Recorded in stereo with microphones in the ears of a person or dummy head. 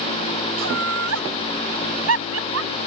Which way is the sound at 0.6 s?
75° right (ahead or behind).